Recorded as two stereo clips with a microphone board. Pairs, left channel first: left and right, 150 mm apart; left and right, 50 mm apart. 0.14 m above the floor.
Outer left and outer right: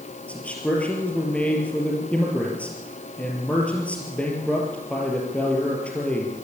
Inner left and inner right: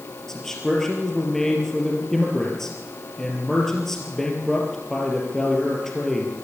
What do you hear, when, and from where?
0.3 s a man speaking: 10° left (ahead or behind), 4 m